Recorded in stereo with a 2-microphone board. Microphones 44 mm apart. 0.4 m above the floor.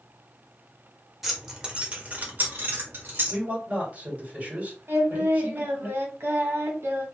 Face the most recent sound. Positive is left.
turn(degrees=-75)  # may be behind; listen again after turning